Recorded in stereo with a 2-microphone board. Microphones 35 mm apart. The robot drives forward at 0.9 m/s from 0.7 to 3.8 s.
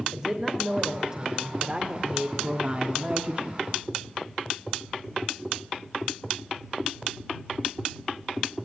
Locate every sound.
0.1 s a woman speaking: 20° right (ahead or behind), 3 m; by 3.6 s 40° right (ahead or behind), 1.5 m